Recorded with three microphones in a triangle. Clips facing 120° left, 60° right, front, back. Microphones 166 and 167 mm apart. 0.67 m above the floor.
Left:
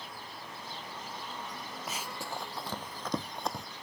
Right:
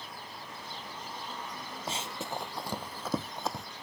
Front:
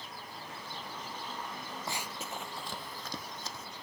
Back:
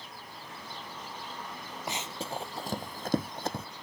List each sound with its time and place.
1.9 s running footsteps: 110° right; by 3.7 s 150° right